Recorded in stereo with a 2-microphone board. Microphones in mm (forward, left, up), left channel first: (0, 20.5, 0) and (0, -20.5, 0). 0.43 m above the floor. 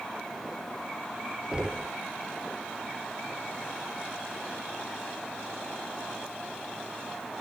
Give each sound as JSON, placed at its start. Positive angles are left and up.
{"t": 1.5, "sound": "knocking", "side_deg": -20}